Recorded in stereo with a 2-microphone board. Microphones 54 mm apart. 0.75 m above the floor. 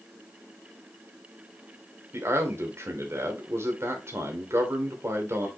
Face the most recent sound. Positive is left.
turn(degrees=-50)  # may be behind; listen again after turning